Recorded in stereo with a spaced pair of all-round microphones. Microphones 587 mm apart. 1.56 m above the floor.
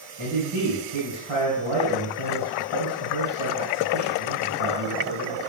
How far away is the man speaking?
About 1.9 m.